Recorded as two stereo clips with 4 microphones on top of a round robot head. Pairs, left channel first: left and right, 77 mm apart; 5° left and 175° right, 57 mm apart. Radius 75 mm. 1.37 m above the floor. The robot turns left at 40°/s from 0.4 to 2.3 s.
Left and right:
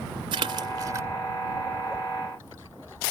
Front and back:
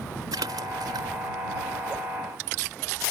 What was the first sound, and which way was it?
A splash, 130° right.